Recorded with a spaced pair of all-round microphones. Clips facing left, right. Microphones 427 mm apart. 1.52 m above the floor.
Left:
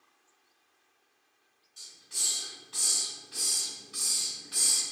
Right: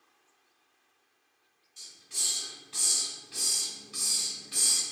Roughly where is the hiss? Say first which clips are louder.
Right 1 dB; right.